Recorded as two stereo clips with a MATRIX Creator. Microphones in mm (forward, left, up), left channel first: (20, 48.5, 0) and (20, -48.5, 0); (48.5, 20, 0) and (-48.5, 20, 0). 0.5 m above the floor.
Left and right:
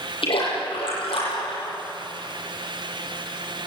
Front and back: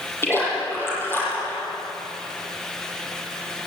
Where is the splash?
65° left, 10 m.